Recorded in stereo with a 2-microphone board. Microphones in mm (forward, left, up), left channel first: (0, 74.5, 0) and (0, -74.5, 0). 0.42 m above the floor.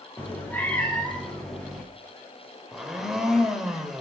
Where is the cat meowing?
15° left (ahead or behind), 2.5 m; by 1.8 s centre (ahead or behind), 3.5 m.